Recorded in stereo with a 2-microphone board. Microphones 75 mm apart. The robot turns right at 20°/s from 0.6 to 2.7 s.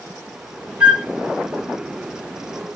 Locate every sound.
0.8 s a flute: 15° right (ahead or behind), 1.8 m; by 1.1 s 10° right (ahead or behind), 1.8 m